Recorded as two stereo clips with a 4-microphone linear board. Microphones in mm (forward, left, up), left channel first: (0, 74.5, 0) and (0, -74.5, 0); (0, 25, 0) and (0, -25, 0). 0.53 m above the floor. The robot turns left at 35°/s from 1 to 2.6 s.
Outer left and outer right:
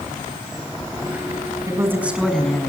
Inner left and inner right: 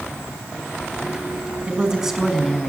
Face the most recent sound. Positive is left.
turn(degrees=170)